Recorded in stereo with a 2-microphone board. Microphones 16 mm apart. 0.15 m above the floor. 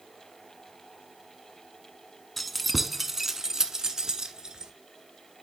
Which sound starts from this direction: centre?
Keys jangling, at 2.4 s.